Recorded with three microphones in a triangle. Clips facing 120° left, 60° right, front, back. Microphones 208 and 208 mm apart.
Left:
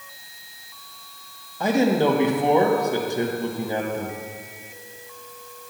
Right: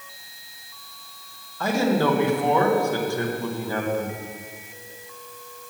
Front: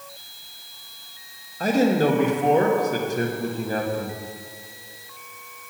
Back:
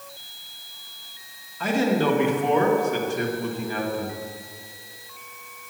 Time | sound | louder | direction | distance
1.6 | a man speaking | left 2 dB, front 3 dB | 45° left | 1.2 m